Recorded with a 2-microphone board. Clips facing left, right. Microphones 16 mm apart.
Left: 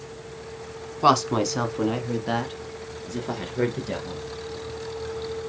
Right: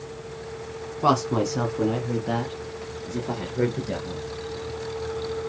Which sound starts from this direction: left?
A woman speaking, at 1.0 s.